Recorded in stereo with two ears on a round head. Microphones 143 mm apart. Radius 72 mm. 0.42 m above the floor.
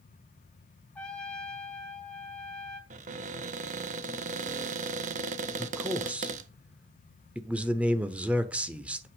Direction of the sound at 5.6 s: 10° right (ahead or behind).